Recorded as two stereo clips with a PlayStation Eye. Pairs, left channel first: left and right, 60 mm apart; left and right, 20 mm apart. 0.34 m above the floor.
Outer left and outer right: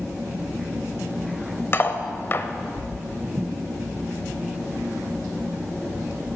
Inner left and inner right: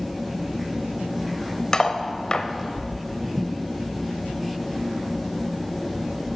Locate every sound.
1.7 s cutlery clinking: 40° left (ahead or behind), 0.6 m